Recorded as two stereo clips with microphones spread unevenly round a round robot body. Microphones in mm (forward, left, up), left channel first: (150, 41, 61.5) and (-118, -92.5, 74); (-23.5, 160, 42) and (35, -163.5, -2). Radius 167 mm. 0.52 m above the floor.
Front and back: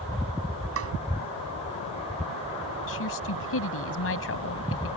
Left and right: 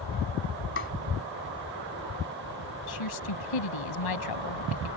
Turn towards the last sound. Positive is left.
turn(degrees=75)